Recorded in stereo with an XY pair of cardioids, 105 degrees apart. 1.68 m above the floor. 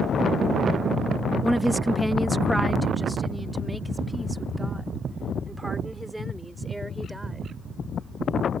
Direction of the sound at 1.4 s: Straight ahead.